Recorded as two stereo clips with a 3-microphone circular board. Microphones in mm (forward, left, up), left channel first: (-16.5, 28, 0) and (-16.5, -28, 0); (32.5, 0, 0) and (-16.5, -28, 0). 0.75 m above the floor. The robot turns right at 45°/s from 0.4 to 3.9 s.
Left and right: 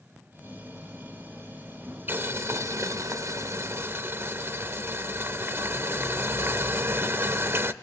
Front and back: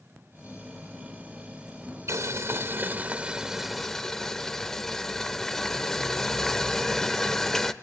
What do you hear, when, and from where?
2.1 s boiling: 135° right, 0.7 m; by 7.7 s 50° right, 0.7 m